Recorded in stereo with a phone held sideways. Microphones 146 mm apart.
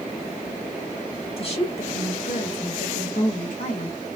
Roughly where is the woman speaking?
Left.